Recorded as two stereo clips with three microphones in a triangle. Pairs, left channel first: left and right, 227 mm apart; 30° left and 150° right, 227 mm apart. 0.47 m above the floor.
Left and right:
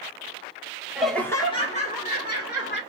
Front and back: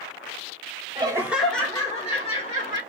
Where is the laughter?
170° right, 0.9 m; by 2.8 s 75° left, 1.5 m.